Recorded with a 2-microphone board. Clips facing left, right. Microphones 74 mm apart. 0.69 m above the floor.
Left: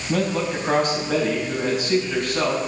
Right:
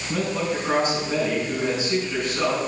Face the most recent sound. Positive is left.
turn(degrees=65)  # may be behind; listen again after turning